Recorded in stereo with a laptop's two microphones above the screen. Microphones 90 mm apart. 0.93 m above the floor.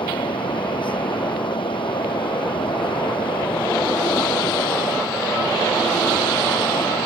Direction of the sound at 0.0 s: 70° left (ahead or behind).